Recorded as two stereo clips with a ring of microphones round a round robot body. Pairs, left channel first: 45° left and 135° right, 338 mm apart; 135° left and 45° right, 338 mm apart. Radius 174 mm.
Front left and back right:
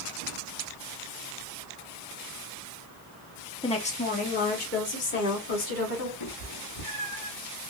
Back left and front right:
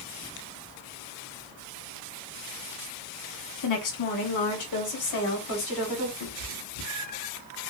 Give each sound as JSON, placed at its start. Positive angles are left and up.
{"t": 3.6, "sound": "a woman speaking", "azimuth_deg": 120, "distance_m": 1.2}
{"t": 6.2, "sound": "a cat meowing", "azimuth_deg": 75, "distance_m": 2.5}